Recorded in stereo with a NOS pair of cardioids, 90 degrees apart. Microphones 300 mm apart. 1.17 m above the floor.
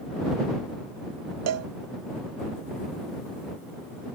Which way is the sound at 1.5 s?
55° right.